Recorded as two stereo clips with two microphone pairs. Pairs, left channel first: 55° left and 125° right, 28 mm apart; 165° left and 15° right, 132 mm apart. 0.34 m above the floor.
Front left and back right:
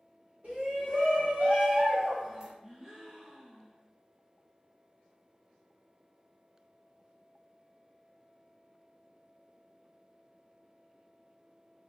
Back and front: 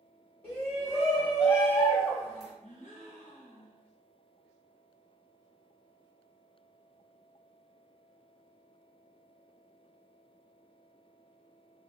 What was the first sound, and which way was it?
A shout, 130° right.